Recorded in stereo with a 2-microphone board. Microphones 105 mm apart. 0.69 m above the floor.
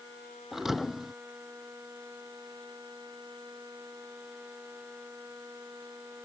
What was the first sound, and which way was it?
A thud, centre (ahead or behind).